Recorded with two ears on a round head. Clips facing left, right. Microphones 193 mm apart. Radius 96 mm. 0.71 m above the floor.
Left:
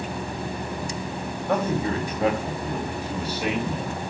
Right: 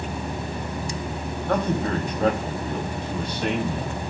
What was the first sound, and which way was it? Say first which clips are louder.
A man speaking: even; 5° left (ahead or behind).